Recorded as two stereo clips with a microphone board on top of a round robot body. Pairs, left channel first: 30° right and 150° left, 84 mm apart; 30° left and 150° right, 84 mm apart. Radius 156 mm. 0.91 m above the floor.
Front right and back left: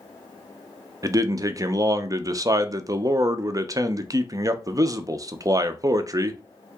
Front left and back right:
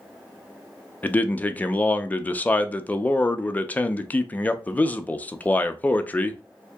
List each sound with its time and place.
1.0 s a man speaking: 100° left, 0.5 m